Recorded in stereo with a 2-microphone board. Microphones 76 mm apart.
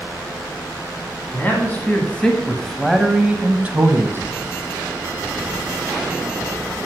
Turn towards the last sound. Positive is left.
turn(degrees=-30)  # may be behind; listen again after turning